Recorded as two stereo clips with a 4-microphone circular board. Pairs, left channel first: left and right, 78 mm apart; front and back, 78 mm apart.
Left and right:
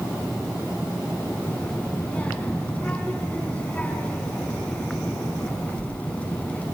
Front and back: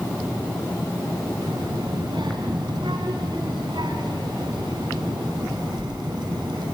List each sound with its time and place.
1.4 s a child speaking: 160° left, 3.5 m